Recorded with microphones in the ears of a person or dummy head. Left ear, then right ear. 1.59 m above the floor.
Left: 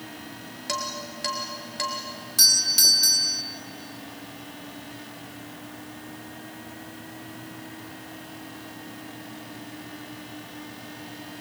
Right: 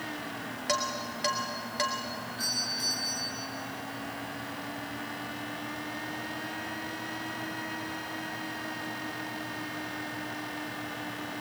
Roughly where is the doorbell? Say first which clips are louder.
Left 14 dB; left.